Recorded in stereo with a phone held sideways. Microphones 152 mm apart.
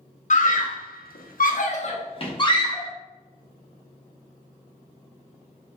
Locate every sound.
0.3 s a scream: 55° left (ahead or behind), 0.8 m; by 2.9 s 25° left (ahead or behind), 1.1 m